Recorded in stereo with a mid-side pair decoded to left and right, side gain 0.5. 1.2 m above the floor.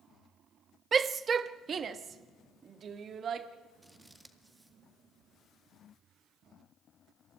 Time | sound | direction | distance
0.9 | a shout | 35° right | 1.0 m
3.8 | scissors | 10° right | 1.9 m